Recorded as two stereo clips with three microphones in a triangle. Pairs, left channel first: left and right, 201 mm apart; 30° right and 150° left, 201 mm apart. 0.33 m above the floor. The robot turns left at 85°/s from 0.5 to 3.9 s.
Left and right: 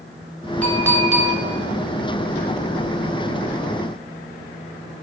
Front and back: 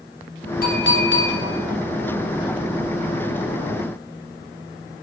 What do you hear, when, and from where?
0.6 s a clink: 10° left, 2.5 m; by 1.3 s 50° right, 2.5 m